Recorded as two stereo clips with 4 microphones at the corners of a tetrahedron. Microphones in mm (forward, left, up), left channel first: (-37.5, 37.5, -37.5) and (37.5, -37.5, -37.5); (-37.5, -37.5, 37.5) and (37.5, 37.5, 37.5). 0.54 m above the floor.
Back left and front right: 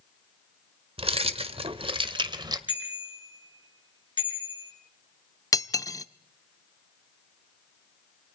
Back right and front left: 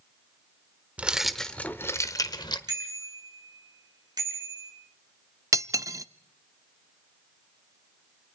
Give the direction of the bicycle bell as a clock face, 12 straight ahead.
9 o'clock.